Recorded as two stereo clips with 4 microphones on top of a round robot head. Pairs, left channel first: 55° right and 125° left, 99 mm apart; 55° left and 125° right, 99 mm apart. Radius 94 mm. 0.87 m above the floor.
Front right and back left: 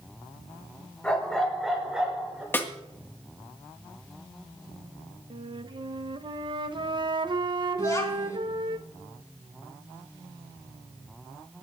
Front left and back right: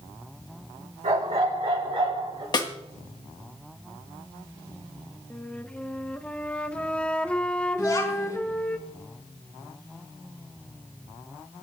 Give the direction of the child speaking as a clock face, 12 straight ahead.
12 o'clock.